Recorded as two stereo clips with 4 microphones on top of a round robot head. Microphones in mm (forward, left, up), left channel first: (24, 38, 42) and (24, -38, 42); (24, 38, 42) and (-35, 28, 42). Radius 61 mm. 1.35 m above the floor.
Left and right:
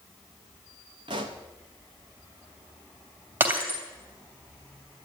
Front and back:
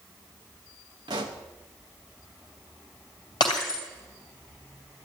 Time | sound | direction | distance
1.1 | a pop | 130° right | 1.0 m
3.4 | breaking glass | 30° right | 2.5 m